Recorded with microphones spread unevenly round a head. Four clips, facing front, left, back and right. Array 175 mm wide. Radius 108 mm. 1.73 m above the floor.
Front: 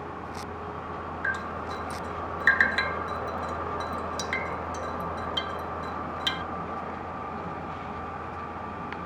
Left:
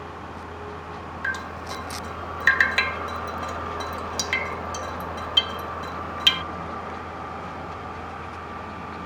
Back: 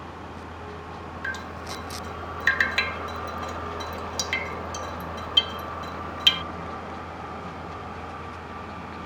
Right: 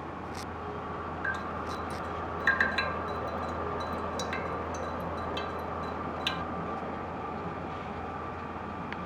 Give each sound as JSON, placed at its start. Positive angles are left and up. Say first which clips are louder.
{"t": 1.2, "sound": "dripping", "louder": "left 5 dB, front 2 dB", "azimuth_deg": 90}